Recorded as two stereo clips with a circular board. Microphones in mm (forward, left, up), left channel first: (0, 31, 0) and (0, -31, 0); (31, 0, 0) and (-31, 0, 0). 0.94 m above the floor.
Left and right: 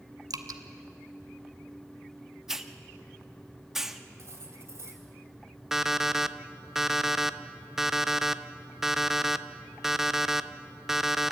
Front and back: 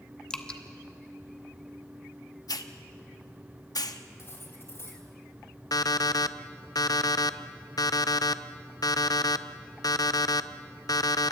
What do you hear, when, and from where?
0.3 s dripping: 75° right, 1.2 m
2.5 s a hiss: 5° right, 0.9 m
4.2 s cutlery clinking: 45° right, 3.5 m
5.7 s an alarm clock: 5° right, 0.6 m